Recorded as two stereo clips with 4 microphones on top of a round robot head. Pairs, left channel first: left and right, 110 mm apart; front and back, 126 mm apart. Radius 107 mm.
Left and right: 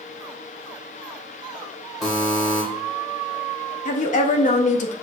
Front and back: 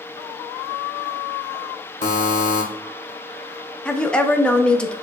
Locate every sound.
2.0 s a buzzer: straight ahead, 1.3 m
3.9 s a woman speaking: 80° left, 0.8 m